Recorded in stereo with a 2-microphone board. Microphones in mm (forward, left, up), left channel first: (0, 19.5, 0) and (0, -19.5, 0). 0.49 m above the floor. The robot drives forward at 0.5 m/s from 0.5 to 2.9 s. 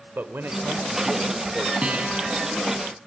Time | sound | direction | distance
0.1 | a man speaking | 60° right (ahead or behind) | 1.7 m
1.8 | a guitar | 25° right (ahead or behind) | 4.5 m